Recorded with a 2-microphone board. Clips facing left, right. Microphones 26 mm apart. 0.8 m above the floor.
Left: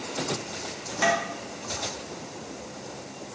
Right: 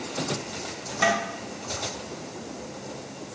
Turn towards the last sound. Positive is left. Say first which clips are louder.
# right 1 dB
turn(degrees=-5)  # may be behind; listen again after turning